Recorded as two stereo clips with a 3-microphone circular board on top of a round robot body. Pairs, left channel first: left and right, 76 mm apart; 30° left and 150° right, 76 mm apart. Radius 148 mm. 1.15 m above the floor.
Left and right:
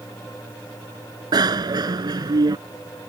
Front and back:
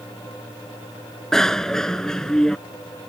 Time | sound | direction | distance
1.3 | a bicycle bell | 55° right | ?